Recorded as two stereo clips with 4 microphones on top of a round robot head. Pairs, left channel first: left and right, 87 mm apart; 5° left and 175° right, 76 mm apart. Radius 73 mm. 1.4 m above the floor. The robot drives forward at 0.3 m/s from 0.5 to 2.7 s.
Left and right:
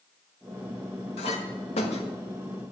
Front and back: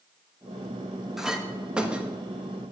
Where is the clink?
100° left, 1.4 m; by 2.1 s 110° left, 1.5 m.